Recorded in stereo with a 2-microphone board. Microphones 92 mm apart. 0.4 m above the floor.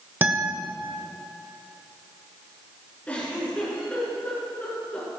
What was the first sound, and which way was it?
A guitar, 20° right (ahead or behind).